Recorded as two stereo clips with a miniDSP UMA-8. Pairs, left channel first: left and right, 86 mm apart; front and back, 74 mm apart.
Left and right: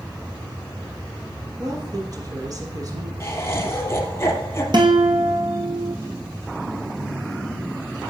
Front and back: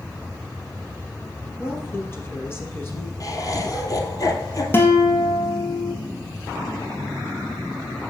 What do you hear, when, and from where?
1.6 s a woman speaking: 55° right, 3.5 m
3.2 s laughter: 35° left, 2.5 m
4.7 s a guitar: 60° right, 2 m